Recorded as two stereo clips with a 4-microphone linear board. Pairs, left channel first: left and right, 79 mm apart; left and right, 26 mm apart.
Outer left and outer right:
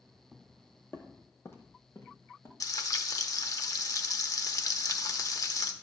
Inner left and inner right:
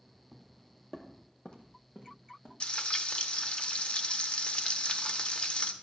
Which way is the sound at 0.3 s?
5° left (ahead or behind).